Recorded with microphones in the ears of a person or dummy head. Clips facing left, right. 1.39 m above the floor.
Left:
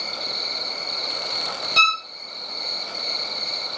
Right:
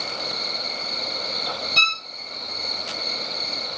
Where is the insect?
80° right, 6.5 m.